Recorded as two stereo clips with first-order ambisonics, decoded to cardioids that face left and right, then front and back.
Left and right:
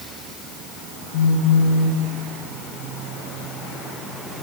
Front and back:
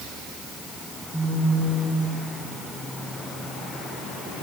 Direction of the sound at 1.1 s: 100° left.